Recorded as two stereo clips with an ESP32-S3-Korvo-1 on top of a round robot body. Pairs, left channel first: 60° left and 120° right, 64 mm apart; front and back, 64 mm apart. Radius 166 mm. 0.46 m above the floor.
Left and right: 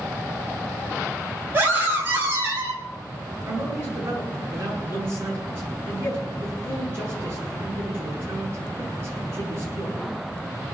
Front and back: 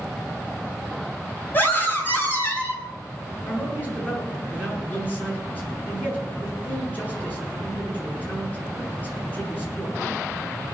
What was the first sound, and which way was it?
A scream, 55° right.